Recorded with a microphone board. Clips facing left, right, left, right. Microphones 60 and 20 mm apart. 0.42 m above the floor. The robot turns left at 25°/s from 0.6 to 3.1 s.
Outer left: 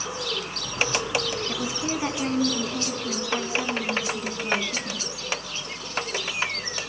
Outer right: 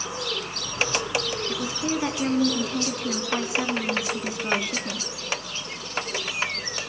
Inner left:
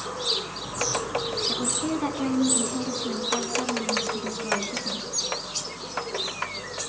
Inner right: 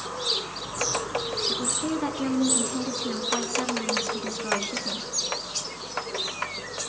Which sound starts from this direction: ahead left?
A woman speaking, at 1.5 s.